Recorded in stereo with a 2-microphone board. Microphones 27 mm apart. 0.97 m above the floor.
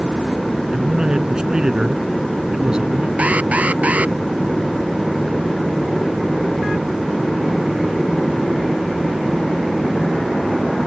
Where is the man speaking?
25° right (ahead or behind); by 3.1 s 35° right (ahead or behind).